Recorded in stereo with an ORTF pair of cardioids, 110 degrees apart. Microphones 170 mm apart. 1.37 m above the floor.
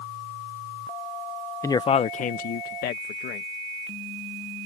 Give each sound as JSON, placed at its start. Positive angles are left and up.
{"t": 1.6, "sound": "a man speaking", "azimuth_deg": 15}